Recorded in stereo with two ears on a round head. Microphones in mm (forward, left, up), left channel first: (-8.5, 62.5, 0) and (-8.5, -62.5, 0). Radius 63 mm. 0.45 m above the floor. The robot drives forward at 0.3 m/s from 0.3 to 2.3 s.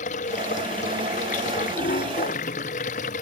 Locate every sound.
0.0 s running water: 50° left (ahead or behind); by 3.2 s 55° left (ahead or behind)